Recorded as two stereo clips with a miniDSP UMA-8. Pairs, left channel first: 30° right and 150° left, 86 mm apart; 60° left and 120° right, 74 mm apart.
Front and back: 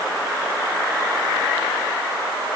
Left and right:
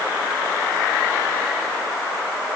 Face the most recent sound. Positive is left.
No sound to turn to.